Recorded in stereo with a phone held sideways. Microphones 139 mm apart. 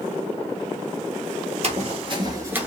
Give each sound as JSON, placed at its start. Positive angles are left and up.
{"t": 1.6, "sound": "running footsteps", "side_deg": -50, "distance_m": 1.3}